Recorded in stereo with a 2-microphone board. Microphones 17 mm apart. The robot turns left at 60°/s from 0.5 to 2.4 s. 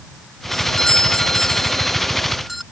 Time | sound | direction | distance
0.5 | a doorbell | 125° left | ?